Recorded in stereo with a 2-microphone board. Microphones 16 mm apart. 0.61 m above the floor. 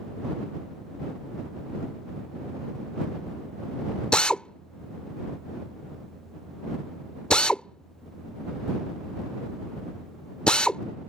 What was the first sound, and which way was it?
A drill, 80° left.